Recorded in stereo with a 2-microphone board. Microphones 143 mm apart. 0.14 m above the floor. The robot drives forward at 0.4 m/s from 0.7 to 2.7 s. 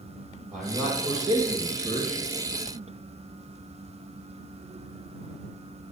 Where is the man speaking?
60° right (ahead or behind), 3 m; by 2.2 s 50° right (ahead or behind), 3 m.